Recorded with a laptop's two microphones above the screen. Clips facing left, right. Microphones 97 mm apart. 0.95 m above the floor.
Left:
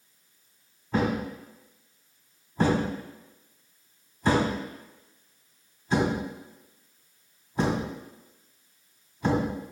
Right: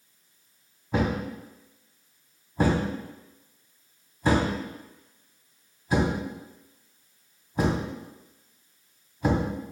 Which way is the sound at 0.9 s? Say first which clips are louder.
Even; 10° right (ahead or behind).